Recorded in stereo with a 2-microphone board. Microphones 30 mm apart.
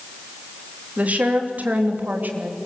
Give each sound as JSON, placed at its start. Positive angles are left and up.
{"t": 1.0, "sound": "a woman speaking", "side_deg": -55, "distance_m": 3.5}